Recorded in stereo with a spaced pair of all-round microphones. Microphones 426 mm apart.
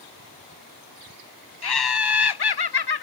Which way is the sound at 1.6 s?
65° left (ahead or behind).